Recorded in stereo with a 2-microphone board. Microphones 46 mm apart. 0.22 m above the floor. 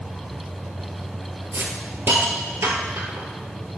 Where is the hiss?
85° right, 1.2 m.